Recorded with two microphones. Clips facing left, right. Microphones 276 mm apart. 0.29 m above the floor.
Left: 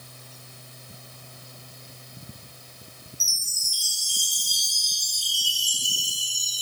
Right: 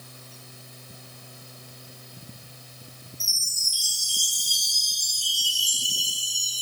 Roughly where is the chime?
Left.